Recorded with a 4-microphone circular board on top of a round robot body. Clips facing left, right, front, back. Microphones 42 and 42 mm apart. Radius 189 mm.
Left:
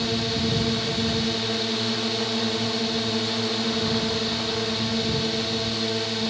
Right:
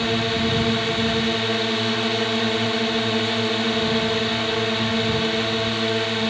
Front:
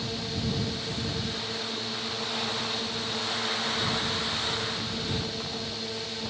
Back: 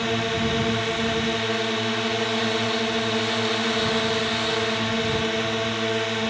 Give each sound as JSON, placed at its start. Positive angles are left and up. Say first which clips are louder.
{"t": 0.0, "sound": "a drone", "louder": "right 4 dB, back 9 dB", "azimuth_deg": -145}